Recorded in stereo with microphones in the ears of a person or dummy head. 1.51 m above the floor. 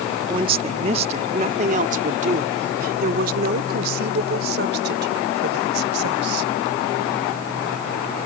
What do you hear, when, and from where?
0.3 s a woman speaking: 25° right (ahead or behind); by 6.5 s 60° right (ahead or behind)